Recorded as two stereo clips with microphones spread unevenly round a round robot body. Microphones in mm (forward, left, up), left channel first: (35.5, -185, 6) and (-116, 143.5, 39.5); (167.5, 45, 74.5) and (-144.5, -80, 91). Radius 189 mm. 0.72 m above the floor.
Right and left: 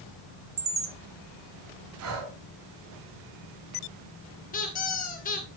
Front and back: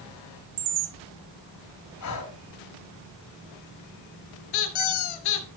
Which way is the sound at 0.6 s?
170° left.